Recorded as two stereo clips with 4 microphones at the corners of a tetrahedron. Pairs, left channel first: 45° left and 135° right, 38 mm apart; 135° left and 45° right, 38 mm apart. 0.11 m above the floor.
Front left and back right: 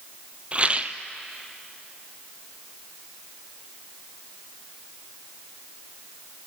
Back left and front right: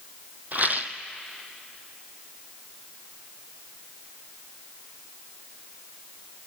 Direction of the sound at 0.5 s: 80° right.